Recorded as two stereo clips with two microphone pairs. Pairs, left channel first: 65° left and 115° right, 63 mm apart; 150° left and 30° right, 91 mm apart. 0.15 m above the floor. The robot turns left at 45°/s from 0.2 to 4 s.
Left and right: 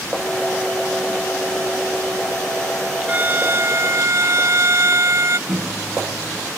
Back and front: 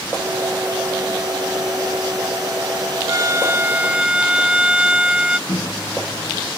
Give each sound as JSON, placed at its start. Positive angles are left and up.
{"t": 3.1, "sound": "a violin", "azimuth_deg": -65}
{"t": 5.5, "sound": "a microwave", "azimuth_deg": -160}